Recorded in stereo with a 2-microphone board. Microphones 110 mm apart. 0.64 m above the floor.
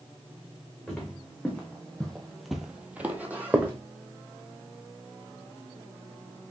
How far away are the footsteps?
About 2 m.